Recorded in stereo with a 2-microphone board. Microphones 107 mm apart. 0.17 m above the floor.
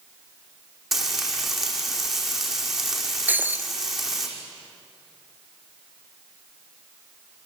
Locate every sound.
0.9 s frying: centre (ahead or behind), 5 m
3.3 s breaking glass: 15° right (ahead or behind), 1.3 m